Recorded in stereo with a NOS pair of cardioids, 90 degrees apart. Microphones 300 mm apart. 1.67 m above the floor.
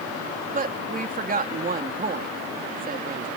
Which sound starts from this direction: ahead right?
A woman speaking, at 0.5 s.